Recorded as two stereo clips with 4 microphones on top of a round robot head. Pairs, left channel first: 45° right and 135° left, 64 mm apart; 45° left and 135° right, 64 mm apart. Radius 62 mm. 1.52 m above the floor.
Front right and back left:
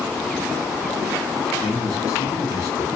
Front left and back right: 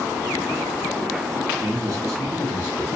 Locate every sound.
1.6 s a man speaking: 95° right, 1.4 m; by 2.9 s 55° right, 1.0 m